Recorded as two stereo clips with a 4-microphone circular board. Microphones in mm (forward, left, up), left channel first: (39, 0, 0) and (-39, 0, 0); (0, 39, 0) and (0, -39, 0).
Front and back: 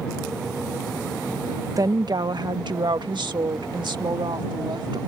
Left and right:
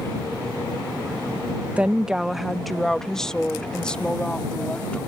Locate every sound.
1.8 s a woman speaking: 160° right; by 5.0 s 165° left